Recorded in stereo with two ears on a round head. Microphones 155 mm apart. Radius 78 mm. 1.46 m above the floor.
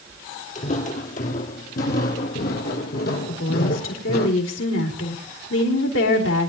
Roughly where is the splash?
I don't hear a splash.